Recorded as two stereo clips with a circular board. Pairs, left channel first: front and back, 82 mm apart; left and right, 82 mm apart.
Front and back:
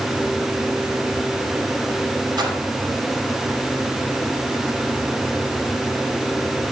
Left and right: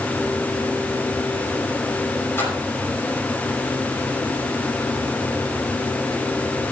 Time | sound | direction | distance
2.4 | a splash | 150° left | 4.5 m